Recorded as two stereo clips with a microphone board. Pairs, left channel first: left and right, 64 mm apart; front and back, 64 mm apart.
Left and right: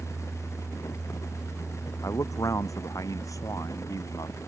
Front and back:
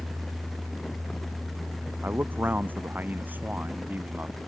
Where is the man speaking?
120° left; by 4.3 s 115° left.